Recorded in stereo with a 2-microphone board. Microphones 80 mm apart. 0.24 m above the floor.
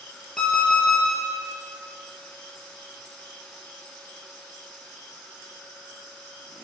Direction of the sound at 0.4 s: 15° left (ahead or behind).